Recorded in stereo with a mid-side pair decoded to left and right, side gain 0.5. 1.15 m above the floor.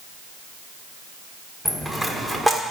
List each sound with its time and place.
1.6 s a dropped coin: 10° right, 1.6 m